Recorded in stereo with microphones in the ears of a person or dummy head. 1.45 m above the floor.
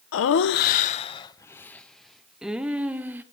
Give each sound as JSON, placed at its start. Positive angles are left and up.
{"t": 0.1, "sound": "laughter", "side_deg": 65, "distance_m": 0.8}